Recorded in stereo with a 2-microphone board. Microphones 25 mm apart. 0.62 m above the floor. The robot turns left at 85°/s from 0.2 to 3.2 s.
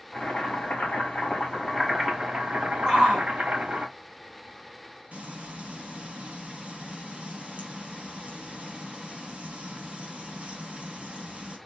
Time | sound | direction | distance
0.1 | boiling | 150° left | 2 m
2.9 | a shout | 20° right (ahead or behind) | 2 m
5.1 | frying | 70° right (ahead or behind) | 1.6 m